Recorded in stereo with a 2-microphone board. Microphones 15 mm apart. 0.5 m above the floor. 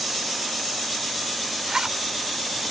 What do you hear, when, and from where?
1.7 s a zipper: 50° right (ahead or behind)